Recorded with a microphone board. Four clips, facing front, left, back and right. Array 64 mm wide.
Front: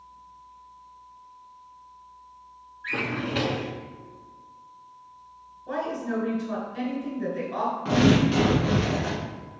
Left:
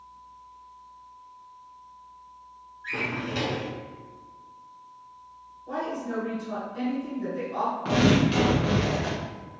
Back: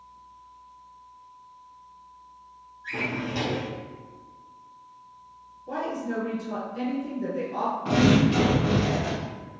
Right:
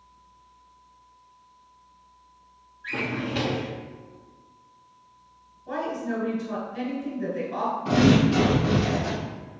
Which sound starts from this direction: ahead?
A drawer, at 2.8 s.